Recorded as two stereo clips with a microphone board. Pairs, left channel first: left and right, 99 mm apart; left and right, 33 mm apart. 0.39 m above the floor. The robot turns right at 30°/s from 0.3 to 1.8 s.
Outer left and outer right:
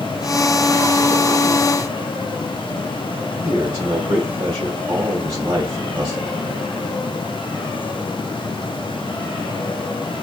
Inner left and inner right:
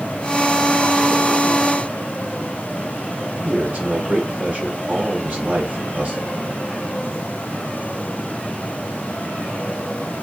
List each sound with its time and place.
3.4 s a man speaking: 35° right (ahead or behind), 2.0 m